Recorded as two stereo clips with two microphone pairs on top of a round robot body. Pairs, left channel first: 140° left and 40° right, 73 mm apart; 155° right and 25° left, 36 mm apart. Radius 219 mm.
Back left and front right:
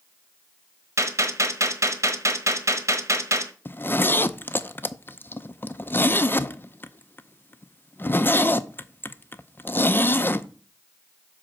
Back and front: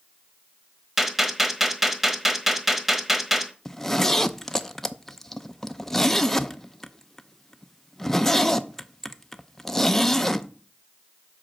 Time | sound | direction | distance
1.0 | a gunshot | 45° right | 1.5 m
3.6 | a zipper | 125° left | 0.8 m